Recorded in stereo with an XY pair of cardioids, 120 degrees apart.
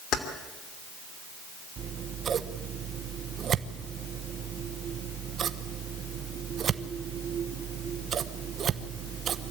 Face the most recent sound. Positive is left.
turn(degrees=-45)